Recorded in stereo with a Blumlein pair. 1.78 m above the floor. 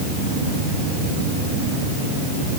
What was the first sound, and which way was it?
Only background noise.